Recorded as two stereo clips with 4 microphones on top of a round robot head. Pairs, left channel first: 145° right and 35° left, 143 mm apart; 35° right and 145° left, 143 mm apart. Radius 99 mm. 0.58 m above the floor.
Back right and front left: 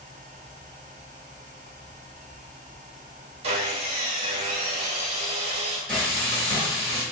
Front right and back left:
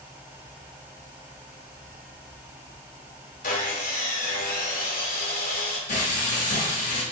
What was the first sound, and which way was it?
Sawing, 10° right.